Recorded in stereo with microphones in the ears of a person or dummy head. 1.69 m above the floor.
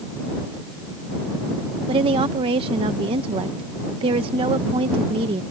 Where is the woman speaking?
30° right (ahead or behind).